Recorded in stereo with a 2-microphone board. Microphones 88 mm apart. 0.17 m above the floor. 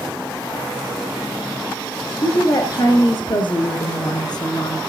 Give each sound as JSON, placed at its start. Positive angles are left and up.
{"t": 2.2, "sound": "a woman speaking", "side_deg": 55, "distance_m": 2.5}